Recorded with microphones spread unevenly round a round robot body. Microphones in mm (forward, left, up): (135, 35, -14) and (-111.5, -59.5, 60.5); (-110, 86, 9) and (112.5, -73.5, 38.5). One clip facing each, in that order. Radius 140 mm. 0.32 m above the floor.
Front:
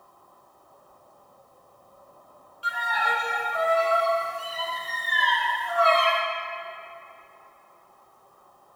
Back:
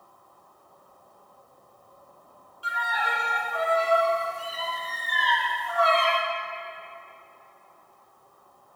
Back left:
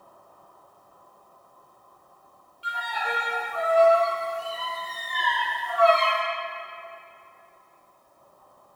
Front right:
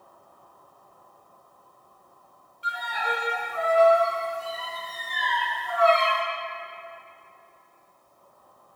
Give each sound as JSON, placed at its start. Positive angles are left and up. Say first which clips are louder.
{"t": 2.6, "sound": "a violin", "louder": "front 2 dB, front right 1 dB", "azimuth_deg": 35, "distance_m": 2.0}